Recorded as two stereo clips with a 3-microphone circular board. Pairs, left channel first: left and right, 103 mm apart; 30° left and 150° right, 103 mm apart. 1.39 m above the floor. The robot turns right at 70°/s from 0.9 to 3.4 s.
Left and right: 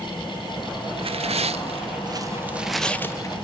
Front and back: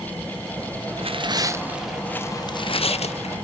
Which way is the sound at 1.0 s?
125° right.